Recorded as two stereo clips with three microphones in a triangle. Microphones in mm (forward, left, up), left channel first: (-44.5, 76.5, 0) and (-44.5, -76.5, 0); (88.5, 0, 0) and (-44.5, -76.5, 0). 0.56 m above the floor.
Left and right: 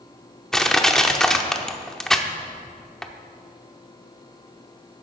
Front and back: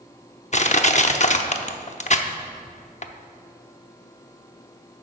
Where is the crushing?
5° left, 0.7 m.